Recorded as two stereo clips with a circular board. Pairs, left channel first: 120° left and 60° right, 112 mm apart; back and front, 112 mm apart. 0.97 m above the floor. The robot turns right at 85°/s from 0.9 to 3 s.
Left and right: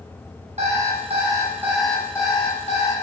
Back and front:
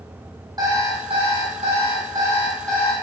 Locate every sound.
0.6 s an alarm clock: 50° right, 3.5 m; by 2.9 s 125° left, 3.5 m